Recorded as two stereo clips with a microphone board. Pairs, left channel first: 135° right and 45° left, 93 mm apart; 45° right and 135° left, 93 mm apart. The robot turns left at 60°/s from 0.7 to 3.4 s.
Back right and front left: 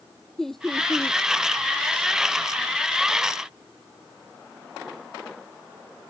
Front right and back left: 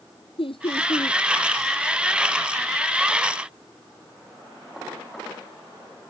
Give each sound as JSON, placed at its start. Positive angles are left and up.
{"t": 0.4, "sound": "laughter", "azimuth_deg": -50}